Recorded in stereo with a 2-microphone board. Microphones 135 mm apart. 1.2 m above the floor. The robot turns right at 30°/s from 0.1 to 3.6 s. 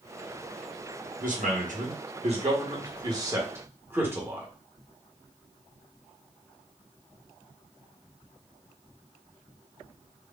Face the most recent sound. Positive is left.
turn(degrees=-15)